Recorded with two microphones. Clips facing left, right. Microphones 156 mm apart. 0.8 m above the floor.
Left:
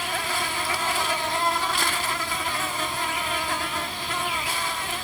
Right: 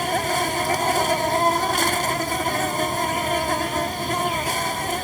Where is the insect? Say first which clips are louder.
Right 7 dB; 45° right (ahead or behind), 0.7 m.